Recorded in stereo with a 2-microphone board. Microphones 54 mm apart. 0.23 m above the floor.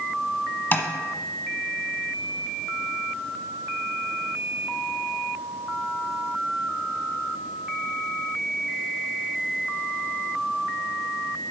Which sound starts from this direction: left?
Tapping, at 0.7 s.